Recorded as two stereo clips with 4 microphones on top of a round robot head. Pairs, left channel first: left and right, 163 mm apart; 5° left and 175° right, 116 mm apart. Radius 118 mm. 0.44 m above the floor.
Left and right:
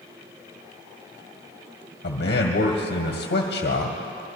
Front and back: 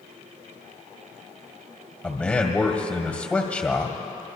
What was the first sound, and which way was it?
A man speaking, 80° left.